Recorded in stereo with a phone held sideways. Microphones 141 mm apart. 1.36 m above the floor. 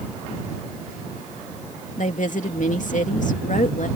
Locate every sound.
2.0 s a woman speaking: 65° left (ahead or behind)